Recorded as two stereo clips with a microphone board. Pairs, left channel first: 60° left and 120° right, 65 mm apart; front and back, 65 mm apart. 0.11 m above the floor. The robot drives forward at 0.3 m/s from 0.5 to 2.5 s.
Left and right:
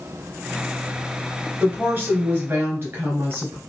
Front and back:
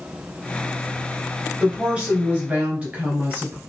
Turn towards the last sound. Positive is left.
turn(degrees=-135)